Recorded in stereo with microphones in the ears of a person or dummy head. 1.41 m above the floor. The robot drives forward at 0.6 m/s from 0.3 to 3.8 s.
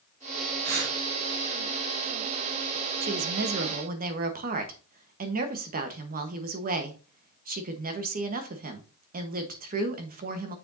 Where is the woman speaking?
65° right (ahead or behind), 1.0 m; by 10.6 s 50° right (ahead or behind), 1.3 m.